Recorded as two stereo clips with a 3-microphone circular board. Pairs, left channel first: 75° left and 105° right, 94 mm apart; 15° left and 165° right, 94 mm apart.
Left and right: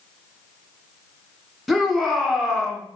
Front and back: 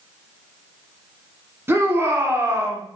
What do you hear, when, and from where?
1.7 s a shout: 170° left, 1.1 m